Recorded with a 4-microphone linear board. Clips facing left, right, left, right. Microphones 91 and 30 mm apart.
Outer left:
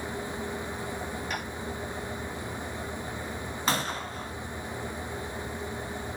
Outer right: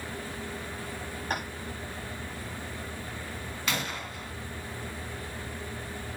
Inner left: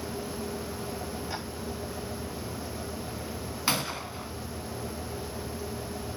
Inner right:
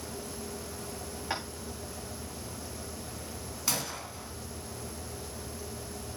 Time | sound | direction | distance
1.3 | tapping | 45° right (ahead or behind) | 5.5 m
3.7 | a gunshot | 35° left (ahead or behind) | 2.5 m